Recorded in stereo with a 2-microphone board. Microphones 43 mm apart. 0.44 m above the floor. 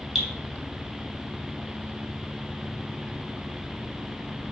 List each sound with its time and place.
0.1 s dripping: 5° right (ahead or behind), 2.5 m